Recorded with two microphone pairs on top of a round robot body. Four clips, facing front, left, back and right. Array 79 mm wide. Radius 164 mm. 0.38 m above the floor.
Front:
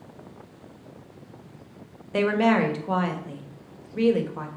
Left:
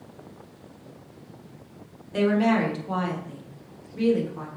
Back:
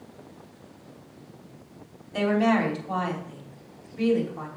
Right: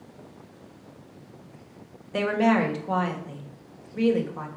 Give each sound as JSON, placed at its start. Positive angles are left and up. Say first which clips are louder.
{"t": 2.1, "sound": "a woman speaking", "louder": "left 1 dB, front 2 dB", "azimuth_deg": -25, "distance_m": 2.5}